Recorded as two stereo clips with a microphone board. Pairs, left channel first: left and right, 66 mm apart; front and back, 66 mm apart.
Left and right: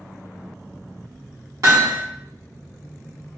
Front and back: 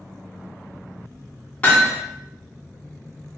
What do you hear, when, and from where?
1.6 s hammering: 65° right, 1.3 m